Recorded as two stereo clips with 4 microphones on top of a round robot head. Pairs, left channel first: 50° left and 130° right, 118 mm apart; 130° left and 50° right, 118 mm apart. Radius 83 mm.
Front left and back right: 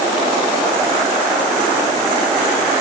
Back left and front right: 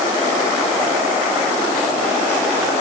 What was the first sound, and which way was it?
Only background noise.